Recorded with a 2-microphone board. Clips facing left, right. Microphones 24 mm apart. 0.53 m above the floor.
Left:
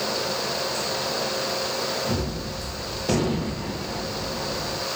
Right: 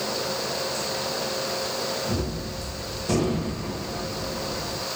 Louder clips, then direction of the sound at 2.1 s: Left 1 dB; 40° left (ahead or behind).